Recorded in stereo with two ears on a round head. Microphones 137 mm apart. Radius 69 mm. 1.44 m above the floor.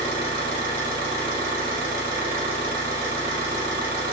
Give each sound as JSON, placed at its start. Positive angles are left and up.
{"t": 0.0, "sound": "an engine running", "side_deg": -65, "distance_m": 0.8}